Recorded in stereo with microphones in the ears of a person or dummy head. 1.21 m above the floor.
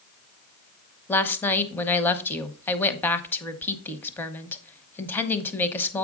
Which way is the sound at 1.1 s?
10° left (ahead or behind).